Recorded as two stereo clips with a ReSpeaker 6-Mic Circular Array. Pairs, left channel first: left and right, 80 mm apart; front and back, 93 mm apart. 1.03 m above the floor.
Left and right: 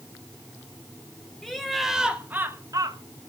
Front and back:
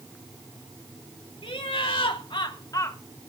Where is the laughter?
5° left, 2 m; by 3.0 s 65° right, 1.3 m.